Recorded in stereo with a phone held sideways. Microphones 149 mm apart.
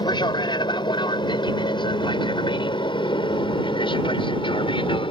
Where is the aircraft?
30° left (ahead or behind); by 5.1 s 35° left (ahead or behind).